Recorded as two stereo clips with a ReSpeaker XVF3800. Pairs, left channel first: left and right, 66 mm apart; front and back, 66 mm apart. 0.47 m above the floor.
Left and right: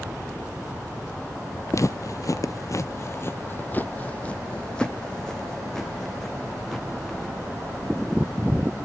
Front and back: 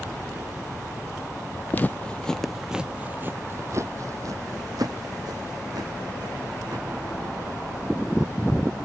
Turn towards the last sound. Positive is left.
turn(degrees=180)